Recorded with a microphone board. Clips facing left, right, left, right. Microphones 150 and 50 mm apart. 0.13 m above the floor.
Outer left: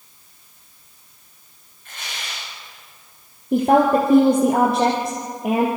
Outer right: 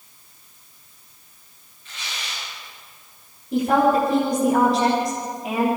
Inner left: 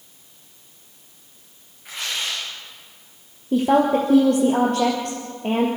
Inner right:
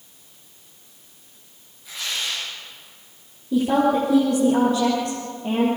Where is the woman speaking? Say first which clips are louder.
Outer left 3 dB, inner left 2 dB; 55° left (ahead or behind), 3 m.